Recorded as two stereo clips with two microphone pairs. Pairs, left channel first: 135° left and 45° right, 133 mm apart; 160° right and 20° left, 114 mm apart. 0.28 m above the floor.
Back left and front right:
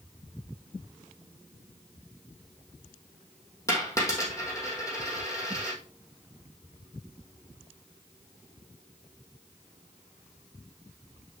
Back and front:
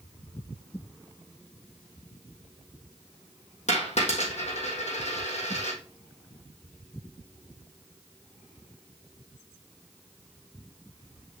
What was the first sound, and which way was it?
A dropped coin, 155° right.